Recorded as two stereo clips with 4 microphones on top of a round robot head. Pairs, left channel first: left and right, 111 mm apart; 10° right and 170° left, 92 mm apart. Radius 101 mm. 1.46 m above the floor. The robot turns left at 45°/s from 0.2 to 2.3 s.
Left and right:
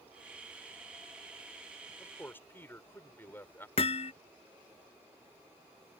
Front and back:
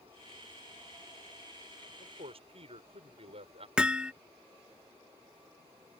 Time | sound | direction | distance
2.0 | a man speaking | 175° left | ?
3.8 | hammering | 95° left | ?